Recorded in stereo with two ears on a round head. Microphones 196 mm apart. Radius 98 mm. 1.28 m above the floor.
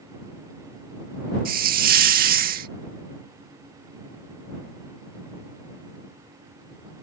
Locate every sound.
1.4 s a hiss: 45° right (ahead or behind)